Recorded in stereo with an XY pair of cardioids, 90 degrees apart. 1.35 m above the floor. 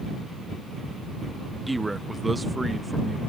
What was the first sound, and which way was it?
A man speaking, 15° right.